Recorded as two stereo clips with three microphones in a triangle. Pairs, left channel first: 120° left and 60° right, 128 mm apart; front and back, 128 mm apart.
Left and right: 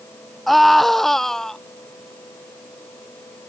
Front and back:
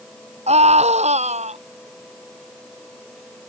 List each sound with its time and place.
0.5 s a scream: 150° right; by 1.6 s 155° right